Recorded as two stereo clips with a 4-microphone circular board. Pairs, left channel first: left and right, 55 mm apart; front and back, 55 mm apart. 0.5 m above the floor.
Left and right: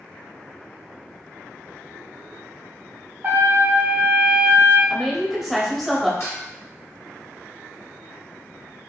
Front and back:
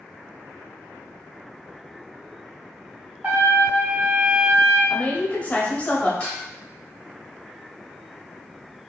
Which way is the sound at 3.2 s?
130° right.